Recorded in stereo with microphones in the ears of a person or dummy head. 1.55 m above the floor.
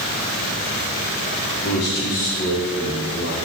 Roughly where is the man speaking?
Centre.